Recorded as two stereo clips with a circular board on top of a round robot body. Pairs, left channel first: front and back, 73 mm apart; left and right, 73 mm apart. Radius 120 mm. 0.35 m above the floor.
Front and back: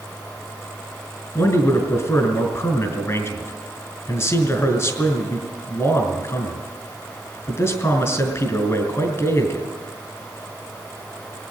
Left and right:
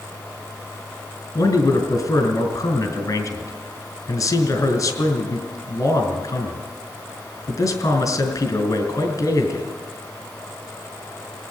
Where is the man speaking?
50° left, 3 m.